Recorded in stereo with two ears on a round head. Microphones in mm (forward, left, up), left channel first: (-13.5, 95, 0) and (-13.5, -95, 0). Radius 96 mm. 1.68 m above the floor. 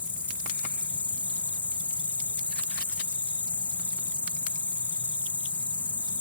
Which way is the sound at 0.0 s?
10° left (ahead or behind).